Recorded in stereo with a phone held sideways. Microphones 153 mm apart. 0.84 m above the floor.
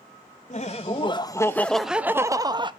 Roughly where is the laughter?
Left.